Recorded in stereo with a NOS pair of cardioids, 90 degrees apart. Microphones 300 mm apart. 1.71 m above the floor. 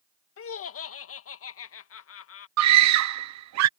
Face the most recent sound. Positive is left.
turn(degrees=-70)